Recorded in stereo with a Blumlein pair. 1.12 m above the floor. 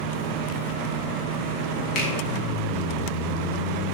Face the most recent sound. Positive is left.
turn(degrees=35)